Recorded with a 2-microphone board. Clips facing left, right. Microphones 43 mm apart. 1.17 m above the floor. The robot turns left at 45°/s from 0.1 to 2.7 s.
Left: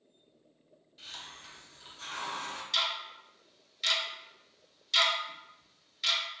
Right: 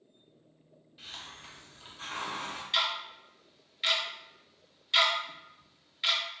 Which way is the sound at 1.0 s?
15° right (ahead or behind).